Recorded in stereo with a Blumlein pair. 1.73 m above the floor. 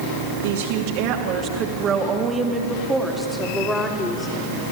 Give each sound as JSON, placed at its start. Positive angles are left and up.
{"t": 0.4, "sound": "a woman speaking", "azimuth_deg": -55, "distance_m": 3.0}